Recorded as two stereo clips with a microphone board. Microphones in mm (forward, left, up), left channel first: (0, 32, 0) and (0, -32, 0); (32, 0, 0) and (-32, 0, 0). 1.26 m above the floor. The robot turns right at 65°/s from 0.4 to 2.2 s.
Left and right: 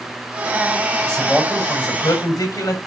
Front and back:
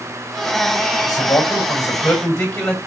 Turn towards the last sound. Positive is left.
turn(degrees=75)